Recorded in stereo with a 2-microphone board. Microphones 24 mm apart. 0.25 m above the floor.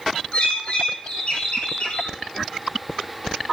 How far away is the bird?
About 7 m.